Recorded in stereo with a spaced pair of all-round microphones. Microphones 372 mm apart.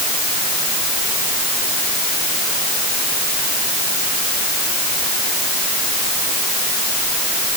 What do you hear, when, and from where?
Only background noise.